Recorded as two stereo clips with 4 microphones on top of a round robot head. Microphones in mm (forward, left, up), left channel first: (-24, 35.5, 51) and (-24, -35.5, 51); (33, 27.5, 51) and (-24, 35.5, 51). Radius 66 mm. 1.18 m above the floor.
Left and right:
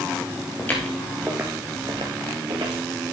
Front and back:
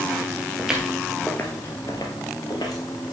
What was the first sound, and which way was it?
Footsteps, 115° left.